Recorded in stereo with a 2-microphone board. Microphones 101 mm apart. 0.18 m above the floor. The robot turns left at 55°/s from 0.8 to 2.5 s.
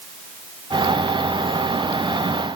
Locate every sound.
Only background noise.